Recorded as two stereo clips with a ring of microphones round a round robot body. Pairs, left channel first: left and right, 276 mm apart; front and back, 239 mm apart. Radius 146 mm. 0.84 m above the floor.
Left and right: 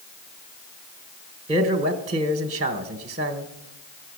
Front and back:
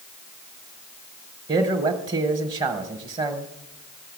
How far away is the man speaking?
About 1.1 m.